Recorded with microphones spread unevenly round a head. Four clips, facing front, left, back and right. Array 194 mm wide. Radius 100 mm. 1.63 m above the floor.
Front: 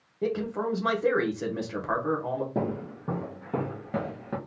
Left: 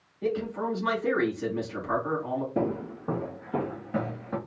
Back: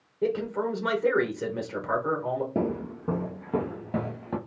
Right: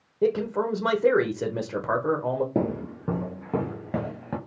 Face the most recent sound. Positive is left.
turn(degrees=-100)